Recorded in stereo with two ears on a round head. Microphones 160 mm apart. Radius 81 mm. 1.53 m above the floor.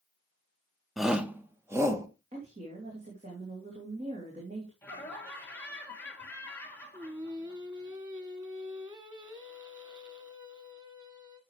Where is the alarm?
I don't hear an alarm.